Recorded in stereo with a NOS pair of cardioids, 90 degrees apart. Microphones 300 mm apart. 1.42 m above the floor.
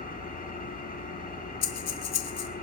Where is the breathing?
60° left, 1.7 m.